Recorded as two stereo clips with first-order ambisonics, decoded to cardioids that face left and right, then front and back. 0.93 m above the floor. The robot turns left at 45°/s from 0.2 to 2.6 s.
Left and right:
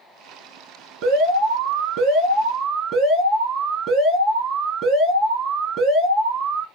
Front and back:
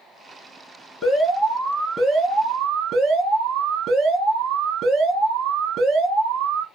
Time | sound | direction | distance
1.0 | an alarm | 75° right | 2 m